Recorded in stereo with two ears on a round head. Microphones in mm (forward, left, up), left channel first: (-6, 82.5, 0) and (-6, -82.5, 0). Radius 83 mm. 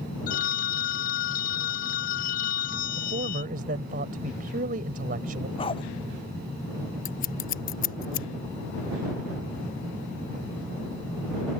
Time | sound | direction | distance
0.3 | a phone ringing | 45° left (ahead or behind) | ?
3.0 | a man speaking | 50° right (ahead or behind) | ?
5.6 | a dog barking | 30° left (ahead or behind) | ?
7.0 | scissors | 50° left (ahead or behind) | ?